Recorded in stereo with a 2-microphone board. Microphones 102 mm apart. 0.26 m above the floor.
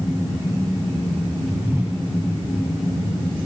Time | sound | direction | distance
1.6 | a whoosh | 20° right (ahead or behind) | 3 m